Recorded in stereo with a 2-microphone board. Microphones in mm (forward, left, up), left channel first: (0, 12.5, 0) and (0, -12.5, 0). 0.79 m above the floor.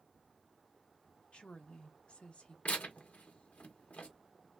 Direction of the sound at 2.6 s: 65° left (ahead or behind).